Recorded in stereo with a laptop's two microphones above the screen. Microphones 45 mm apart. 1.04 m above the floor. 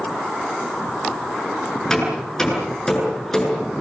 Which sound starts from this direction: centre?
Hammering, at 1.9 s.